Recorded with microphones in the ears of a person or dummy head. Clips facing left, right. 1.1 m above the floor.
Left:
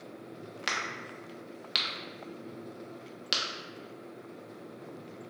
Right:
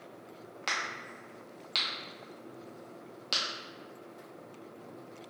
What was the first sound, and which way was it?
A crack, 20° left (ahead or behind).